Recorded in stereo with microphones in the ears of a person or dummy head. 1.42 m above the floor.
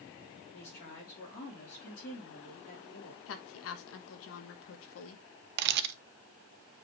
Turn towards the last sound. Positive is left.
turn(degrees=-60)  # may be behind; listen again after turning